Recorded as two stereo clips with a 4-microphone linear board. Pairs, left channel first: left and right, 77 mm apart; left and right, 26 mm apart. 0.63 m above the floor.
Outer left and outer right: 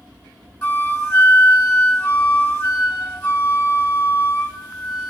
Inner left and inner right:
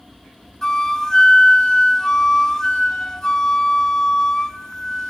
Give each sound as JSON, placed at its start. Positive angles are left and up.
{"t": 0.6, "sound": "a flute", "side_deg": 35, "distance_m": 1.2}